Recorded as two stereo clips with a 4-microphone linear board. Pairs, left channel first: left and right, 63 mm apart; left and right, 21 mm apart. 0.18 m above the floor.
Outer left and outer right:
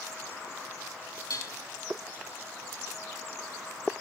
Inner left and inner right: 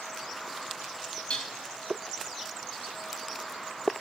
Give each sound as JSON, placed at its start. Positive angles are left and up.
{"t": 1.3, "sound": "dishes clattering", "side_deg": 70, "distance_m": 4.0}